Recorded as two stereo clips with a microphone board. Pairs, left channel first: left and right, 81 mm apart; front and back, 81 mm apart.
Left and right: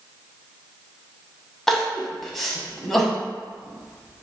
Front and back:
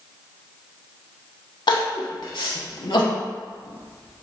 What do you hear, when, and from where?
1.7 s crying: 5° left, 0.6 m